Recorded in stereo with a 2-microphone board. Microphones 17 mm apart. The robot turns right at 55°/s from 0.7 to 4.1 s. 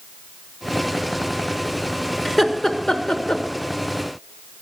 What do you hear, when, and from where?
2.2 s laughter: 5° left (ahead or behind), 1.1 m; by 3.4 s 70° left (ahead or behind), 1.1 m